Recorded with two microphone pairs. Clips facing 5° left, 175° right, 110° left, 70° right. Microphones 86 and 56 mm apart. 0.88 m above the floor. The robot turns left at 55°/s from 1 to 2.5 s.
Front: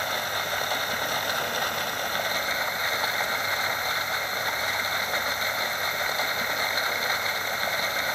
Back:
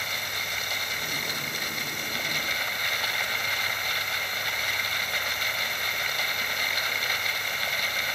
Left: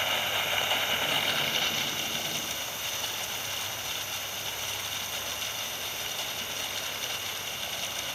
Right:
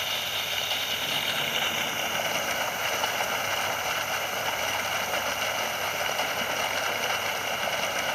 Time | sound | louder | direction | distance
0.0 | running water | front 5 dB, left 2 dB | 35° left | 1.1 m